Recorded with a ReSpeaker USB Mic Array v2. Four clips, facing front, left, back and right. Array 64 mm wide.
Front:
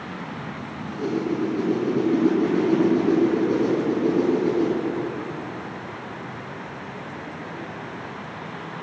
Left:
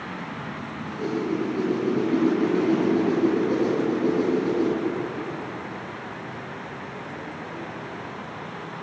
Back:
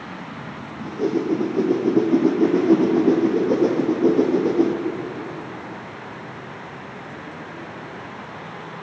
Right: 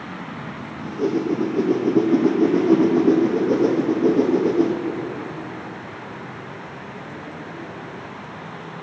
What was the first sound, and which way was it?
A whoosh, 140° right.